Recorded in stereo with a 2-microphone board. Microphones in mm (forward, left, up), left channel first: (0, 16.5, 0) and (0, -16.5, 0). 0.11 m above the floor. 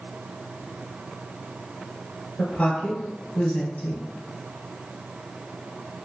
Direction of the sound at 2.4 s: 35° left (ahead or behind).